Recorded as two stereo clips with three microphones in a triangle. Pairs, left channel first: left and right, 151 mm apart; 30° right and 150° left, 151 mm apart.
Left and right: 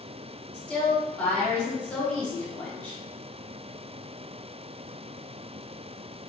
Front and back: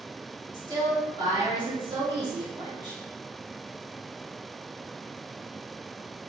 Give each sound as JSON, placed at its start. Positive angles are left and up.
{"t": 0.5, "sound": "a woman speaking", "azimuth_deg": 170, "distance_m": 1.5}